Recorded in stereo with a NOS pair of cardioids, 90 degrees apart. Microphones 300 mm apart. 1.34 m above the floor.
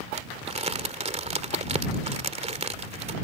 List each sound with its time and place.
0.1 s crumpling: 20° right